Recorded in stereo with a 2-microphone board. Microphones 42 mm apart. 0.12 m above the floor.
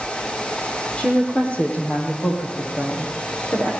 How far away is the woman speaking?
About 5.5 m.